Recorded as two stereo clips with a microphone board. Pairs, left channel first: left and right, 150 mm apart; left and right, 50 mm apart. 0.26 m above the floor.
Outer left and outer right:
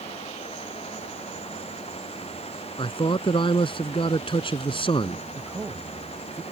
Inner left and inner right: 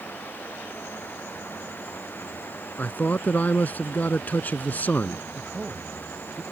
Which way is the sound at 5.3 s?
10° right (ahead or behind).